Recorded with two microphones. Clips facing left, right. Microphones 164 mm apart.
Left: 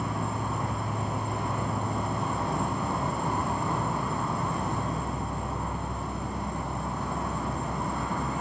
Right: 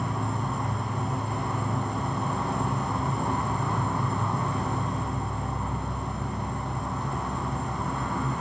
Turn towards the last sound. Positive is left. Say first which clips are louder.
# right 1 dB
turn(degrees=10)  # may be behind; listen again after turning